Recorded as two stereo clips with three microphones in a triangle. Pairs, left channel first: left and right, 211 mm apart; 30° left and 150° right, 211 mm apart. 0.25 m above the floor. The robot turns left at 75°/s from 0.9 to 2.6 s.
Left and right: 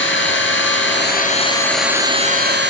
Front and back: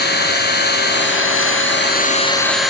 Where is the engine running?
65° left, 3.5 m; by 2.7 s 60° right, 3.5 m.